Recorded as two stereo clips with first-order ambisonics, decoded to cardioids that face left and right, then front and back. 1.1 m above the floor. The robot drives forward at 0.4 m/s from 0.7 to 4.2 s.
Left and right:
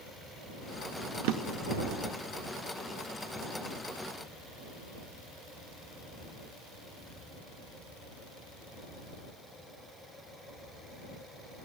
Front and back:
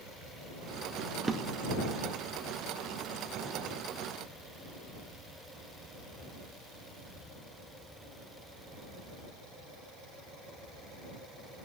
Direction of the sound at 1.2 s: 100° right.